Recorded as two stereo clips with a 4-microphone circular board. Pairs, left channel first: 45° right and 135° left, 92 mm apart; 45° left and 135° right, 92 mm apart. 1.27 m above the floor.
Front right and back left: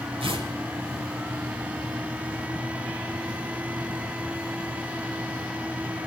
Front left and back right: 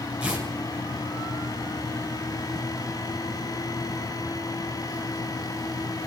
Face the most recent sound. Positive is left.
turn(degrees=150)